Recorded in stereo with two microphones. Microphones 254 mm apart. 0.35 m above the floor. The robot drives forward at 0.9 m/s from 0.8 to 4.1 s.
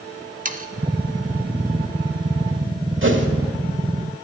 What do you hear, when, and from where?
0.5 s sawing: 35° right (ahead or behind), 0.5 m
3.0 s a whoosh: 50° right (ahead or behind), 1.0 m; by 3.3 s 45° right (ahead or behind), 1.1 m